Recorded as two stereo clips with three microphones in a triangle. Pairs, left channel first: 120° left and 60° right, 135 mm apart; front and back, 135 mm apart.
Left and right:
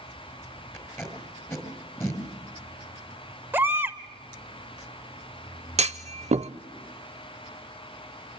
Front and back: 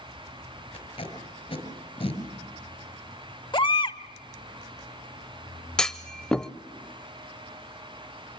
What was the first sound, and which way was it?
Tape being pulled, 50° left.